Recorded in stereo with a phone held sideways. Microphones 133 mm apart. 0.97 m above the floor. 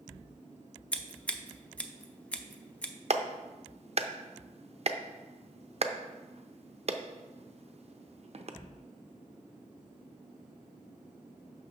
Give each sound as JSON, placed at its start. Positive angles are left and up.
{"t": 0.9, "sound": "scissors", "side_deg": 10, "distance_m": 0.6}
{"t": 3.1, "sound": "a clap", "side_deg": -50, "distance_m": 0.6}